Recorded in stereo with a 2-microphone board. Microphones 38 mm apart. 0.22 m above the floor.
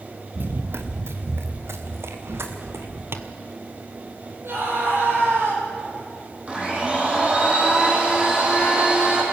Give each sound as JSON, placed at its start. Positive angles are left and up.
{"t": 0.3, "sound": "running footsteps", "side_deg": -55, "distance_m": 1.7}
{"t": 3.1, "sound": "tapping", "side_deg": -70, "distance_m": 1.3}
{"t": 4.4, "sound": "a scream", "side_deg": -70, "distance_m": 9.5}
{"t": 6.5, "sound": "a blender", "side_deg": -30, "distance_m": 6.5}